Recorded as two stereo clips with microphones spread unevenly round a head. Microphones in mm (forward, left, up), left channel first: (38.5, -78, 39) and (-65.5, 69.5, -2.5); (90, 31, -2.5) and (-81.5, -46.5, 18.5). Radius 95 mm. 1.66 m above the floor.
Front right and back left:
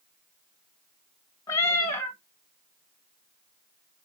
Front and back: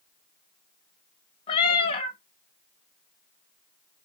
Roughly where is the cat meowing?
Ahead right.